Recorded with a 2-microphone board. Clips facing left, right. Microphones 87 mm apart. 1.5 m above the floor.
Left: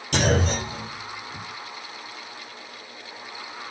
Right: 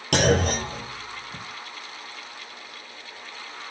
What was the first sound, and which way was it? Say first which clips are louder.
A clunk: right 2 dB; 75° right (ahead or behind).